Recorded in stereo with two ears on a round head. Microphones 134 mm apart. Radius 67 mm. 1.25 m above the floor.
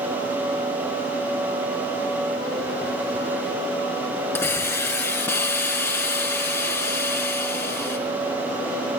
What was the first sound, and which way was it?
A hiss, 15° left (ahead or behind).